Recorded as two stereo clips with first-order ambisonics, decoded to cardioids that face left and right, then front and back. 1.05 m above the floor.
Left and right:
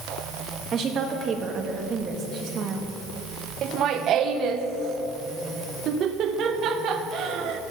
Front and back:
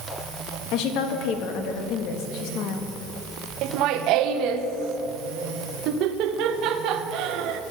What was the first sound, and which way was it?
A woman speaking, 30° right.